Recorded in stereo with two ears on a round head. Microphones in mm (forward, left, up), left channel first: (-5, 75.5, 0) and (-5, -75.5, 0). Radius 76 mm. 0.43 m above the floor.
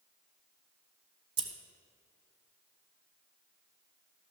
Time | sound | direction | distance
1.4 | scissors | 30° right (ahead or behind) | 0.9 m